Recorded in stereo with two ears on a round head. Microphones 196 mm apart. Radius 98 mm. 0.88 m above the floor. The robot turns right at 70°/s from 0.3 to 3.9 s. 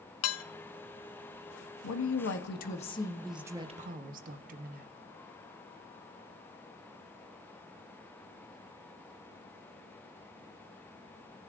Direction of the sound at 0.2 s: 70° left (ahead or behind).